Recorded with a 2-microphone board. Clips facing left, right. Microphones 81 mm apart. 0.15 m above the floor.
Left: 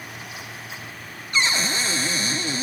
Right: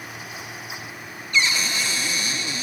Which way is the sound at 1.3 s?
35° left (ahead or behind).